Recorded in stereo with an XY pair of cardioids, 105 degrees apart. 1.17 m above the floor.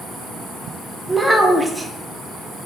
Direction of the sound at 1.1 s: 10° right.